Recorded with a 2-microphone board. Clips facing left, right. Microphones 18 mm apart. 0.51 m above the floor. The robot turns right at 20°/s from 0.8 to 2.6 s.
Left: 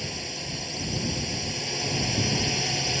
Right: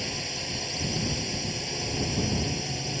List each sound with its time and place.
0.0 s a drone: 5° right; by 3.0 s 30° left